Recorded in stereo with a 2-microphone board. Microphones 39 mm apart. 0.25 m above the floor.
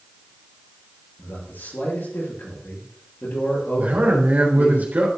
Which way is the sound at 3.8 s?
55° right (ahead or behind).